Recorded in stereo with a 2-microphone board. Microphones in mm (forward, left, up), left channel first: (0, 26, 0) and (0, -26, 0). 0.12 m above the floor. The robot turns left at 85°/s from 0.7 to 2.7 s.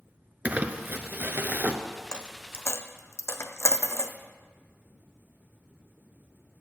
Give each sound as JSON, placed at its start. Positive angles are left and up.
{"t": 0.5, "sound": "crumpling", "azimuth_deg": -45, "distance_m": 0.6}
{"t": 2.1, "sound": "a dropped coin", "side_deg": 15, "distance_m": 0.6}